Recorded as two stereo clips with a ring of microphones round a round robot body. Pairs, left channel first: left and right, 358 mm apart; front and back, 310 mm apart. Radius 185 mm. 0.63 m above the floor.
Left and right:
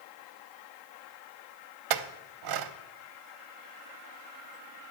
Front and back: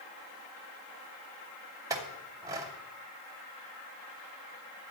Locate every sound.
1.9 s a clink: 100° right, 0.8 m